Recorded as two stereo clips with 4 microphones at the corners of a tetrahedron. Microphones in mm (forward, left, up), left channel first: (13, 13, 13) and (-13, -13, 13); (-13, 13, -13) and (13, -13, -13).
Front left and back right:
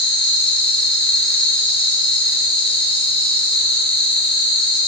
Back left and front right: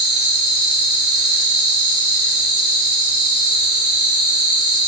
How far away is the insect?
About 0.9 m.